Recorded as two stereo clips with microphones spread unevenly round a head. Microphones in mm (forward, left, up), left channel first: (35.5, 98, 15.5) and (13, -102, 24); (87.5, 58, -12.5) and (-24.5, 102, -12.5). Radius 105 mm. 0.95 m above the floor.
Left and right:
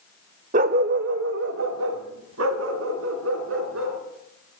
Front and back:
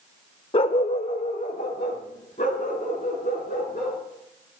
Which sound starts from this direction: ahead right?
A dog barking, at 0.5 s.